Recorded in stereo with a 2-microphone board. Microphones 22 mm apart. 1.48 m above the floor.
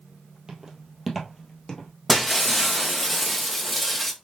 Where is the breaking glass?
Centre (ahead or behind), 0.8 m.